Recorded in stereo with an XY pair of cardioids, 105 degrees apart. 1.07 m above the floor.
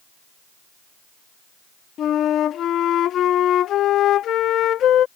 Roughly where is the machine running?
I don't hear a machine running.